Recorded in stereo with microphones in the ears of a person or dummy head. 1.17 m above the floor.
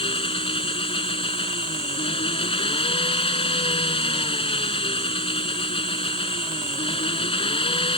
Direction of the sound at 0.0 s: 25° left (ahead or behind).